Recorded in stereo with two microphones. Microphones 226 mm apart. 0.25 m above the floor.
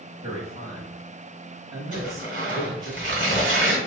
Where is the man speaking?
25° right (ahead or behind), 1.2 m.